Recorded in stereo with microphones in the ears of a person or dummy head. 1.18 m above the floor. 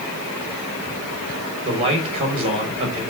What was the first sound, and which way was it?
A man speaking, 30° right (ahead or behind).